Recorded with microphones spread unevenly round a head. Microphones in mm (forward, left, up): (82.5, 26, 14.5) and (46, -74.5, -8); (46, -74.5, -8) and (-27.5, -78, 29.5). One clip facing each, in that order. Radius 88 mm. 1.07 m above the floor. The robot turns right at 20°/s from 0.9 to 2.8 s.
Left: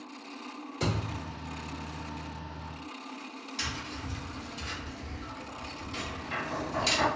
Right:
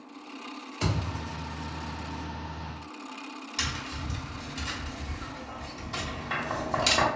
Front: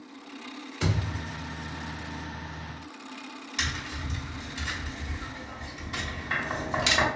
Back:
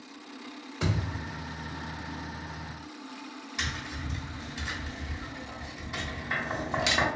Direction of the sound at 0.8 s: 115° left.